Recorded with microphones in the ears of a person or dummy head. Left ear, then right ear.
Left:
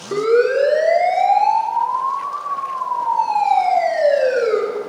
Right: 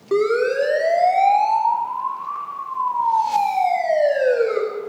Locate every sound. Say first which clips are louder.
0.1 s a siren: left 3 dB; 80° right, 6 m; by 4.6 s 55° right (ahead or behind), 9 m